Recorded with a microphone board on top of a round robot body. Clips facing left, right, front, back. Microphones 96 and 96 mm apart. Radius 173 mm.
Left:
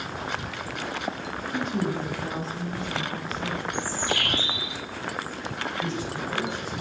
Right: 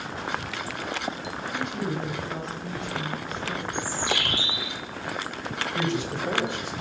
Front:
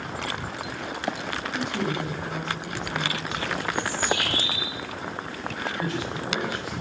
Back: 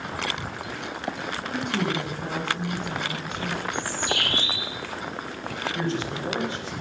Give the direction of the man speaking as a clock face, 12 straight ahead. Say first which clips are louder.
Right 5 dB, back 3 dB; 4 o'clock.